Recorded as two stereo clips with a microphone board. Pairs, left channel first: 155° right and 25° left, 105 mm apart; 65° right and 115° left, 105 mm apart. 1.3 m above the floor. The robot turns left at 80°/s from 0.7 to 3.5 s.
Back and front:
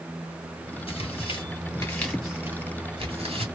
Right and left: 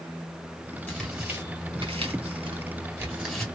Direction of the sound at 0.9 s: 140° right.